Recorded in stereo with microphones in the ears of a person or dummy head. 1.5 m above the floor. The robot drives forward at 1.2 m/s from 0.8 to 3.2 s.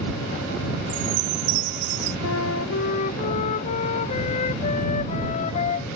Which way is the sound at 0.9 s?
70° right (ahead or behind).